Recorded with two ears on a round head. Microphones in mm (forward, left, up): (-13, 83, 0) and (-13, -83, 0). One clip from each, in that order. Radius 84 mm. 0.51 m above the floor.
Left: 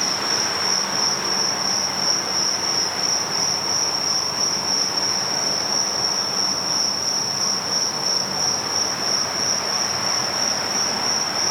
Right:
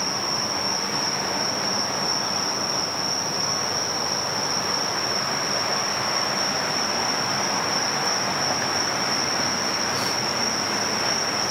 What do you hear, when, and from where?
0.0 s an insect: 30° left (ahead or behind), 6 m